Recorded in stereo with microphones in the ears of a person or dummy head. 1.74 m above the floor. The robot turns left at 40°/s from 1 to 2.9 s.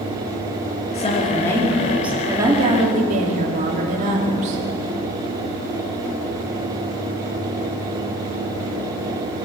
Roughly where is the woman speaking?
Ahead left.